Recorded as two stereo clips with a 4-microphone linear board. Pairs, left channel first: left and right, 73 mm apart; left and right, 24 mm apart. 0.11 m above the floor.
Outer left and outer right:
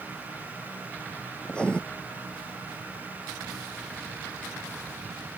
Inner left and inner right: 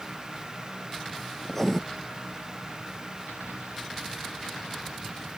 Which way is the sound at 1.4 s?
15° left (ahead or behind).